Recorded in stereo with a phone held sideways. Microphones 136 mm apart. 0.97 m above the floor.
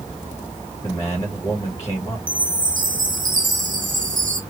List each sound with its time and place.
0.8 s a man speaking: 25° left (ahead or behind), 1.3 m
2.3 s a chime: 80° right, 1.0 m